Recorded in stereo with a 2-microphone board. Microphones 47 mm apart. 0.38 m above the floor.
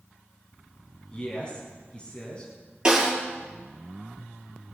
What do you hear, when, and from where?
1.1 s a man speaking: 20° left (ahead or behind), 4.5 m
2.9 s a snare drum: 20° right (ahead or behind), 5.5 m